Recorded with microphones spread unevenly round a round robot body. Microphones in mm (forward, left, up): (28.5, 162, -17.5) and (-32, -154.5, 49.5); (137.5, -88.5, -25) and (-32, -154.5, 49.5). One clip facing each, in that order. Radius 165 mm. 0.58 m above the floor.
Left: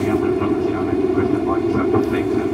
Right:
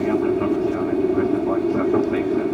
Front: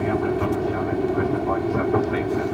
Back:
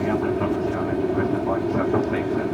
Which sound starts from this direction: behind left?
An aircraft, at 0.0 s.